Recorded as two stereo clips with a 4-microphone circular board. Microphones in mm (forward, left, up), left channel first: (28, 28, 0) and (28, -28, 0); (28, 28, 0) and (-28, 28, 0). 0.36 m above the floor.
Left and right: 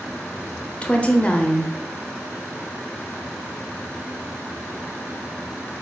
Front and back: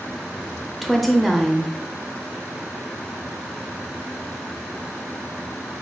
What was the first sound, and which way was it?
A woman speaking, 85° left.